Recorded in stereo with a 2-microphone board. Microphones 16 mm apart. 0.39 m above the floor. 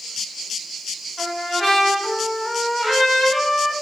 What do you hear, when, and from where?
1.2 s a trumpet: 25° left (ahead or behind), 1.2 m